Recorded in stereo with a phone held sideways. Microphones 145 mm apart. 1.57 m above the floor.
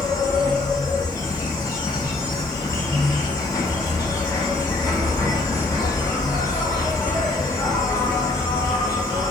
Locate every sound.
0.0 s an insect: 25° left (ahead or behind), 0.7 m